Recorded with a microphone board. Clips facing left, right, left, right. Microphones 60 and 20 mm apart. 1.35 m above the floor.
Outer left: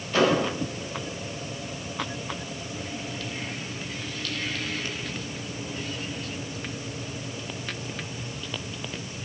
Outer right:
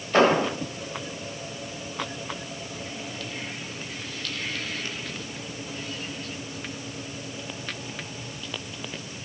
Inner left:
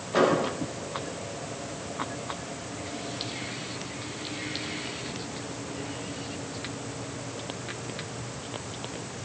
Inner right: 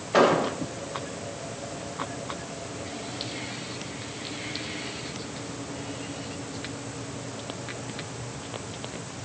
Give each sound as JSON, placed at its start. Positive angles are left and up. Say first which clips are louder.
{"t": 0.1, "sound": "an explosion", "louder": "outer right 3 dB, inner right 3 dB", "side_deg": -40, "distance_m": 1.6}